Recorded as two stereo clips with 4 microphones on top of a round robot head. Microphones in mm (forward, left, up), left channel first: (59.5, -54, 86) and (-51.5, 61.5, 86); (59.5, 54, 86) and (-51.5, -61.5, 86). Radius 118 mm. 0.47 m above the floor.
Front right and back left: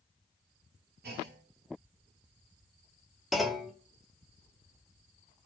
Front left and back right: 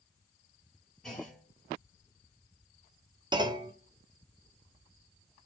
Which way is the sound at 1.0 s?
135° left.